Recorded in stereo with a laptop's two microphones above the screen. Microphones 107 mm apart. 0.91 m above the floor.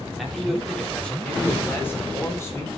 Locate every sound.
0.2 s a man speaking: centre (ahead or behind), 3 m; by 2.8 s 30° left (ahead or behind), 4 m